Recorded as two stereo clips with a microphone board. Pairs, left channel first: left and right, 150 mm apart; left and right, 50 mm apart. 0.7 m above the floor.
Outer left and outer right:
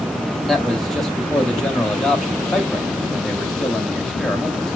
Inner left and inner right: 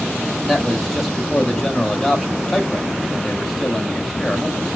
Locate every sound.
0.5 s a man speaking: centre (ahead or behind), 1.6 m